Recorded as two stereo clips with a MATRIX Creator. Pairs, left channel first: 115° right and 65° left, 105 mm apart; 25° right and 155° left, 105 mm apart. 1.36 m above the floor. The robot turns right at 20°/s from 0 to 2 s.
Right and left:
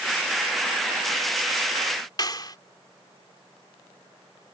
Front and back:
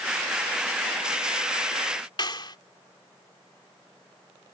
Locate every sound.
2.2 s a clap: 65° right